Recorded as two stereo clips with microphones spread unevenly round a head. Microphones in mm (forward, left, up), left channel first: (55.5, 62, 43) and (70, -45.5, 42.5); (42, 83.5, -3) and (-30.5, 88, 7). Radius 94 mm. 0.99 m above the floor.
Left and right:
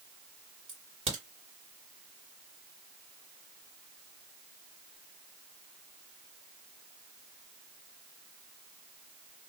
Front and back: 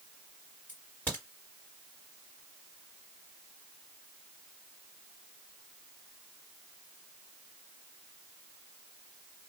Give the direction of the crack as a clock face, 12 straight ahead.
3 o'clock.